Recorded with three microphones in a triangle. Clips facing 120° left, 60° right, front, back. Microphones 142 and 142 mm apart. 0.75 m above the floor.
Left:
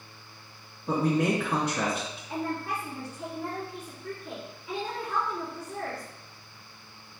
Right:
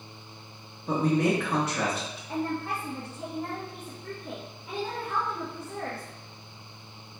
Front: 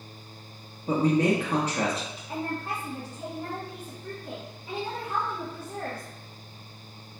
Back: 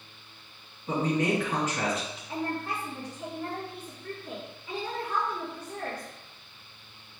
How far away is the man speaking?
About 0.8 m.